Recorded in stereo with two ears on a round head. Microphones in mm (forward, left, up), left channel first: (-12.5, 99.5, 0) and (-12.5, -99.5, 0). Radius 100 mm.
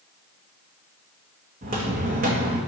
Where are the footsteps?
35° right (ahead or behind), 1.2 m.